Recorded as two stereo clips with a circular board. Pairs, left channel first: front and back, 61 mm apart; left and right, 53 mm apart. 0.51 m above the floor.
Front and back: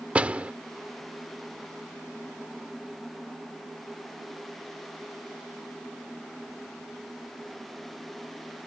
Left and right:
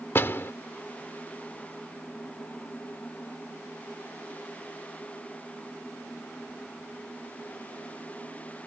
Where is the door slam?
120° left.